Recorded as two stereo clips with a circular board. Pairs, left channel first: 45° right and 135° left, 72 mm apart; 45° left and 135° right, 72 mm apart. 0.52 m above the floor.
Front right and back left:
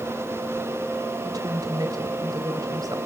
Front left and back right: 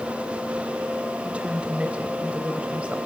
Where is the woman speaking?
155° left, 2.5 m.